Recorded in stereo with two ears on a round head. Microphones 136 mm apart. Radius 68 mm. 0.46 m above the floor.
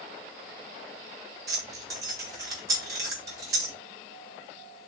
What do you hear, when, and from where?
1.5 s keys jangling: 25° right (ahead or behind), 2 m